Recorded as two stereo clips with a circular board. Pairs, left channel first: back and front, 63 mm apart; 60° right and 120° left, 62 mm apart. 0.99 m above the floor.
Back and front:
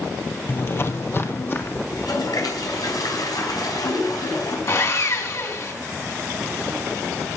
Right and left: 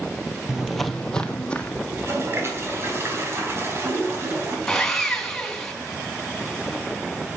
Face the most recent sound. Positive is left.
turn(degrees=-145)